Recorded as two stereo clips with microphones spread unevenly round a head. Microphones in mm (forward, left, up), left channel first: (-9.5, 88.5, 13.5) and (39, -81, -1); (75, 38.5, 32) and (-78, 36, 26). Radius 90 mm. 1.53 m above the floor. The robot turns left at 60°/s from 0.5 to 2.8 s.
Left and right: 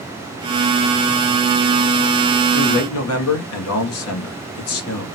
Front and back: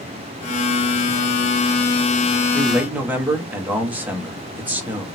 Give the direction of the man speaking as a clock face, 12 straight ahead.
8 o'clock.